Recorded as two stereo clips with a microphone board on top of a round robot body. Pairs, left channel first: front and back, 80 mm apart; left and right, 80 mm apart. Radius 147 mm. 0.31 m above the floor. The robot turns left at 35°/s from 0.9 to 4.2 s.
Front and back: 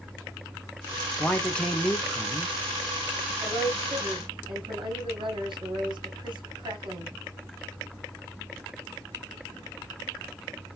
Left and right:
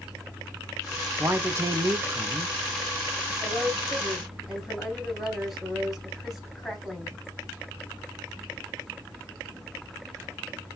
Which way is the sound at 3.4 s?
150° right.